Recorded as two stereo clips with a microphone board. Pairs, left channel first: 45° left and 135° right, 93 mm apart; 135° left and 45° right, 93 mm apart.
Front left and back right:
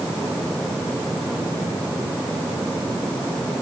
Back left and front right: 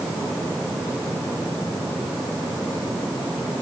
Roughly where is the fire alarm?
No fire alarm in this recording.